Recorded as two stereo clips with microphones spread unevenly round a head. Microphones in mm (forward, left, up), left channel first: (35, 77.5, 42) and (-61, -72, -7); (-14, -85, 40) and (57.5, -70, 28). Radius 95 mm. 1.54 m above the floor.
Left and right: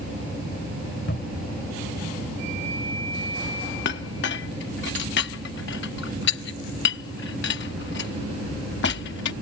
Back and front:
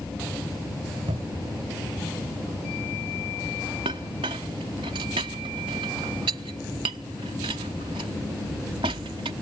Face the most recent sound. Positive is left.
turn(degrees=55)